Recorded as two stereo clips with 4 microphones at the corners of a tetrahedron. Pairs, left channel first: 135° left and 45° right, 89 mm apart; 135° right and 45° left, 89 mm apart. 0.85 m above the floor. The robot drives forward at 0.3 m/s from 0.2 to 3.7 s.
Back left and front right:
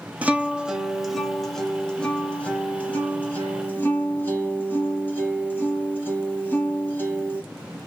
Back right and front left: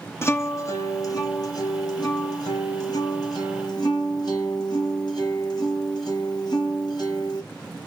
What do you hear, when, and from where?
0.2 s a guitar: 105° right, 0.7 m; by 7.4 s 160° right, 1.3 m